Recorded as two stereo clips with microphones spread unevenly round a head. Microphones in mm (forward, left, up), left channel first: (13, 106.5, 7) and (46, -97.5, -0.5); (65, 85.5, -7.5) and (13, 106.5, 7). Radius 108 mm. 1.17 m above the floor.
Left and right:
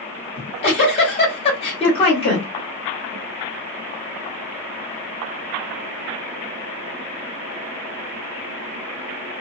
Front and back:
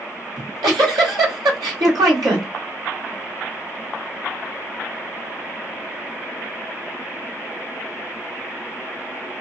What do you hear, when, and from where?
0.4 s a giggle: 165° left, 1.6 m